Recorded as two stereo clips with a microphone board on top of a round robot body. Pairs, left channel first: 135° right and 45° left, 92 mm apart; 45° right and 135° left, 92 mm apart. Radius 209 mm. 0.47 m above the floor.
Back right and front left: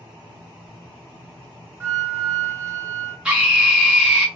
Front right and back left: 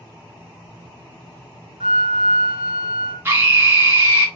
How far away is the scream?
About 1.4 m.